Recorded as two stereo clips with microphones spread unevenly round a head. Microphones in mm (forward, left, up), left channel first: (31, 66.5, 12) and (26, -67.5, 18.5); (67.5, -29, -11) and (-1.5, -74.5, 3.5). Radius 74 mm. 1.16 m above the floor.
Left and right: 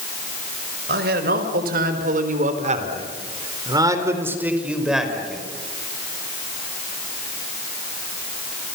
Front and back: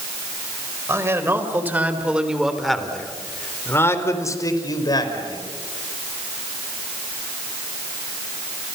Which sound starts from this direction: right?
A man speaking, at 0.9 s.